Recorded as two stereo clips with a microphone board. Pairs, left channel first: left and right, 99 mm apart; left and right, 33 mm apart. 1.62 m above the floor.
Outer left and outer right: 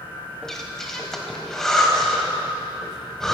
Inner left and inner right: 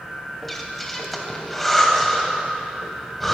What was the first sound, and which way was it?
Breathing, 5° left (ahead or behind).